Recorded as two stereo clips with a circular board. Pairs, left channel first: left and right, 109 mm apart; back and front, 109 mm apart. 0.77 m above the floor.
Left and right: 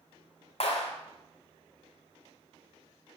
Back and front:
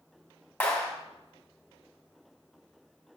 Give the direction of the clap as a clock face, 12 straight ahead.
9 o'clock.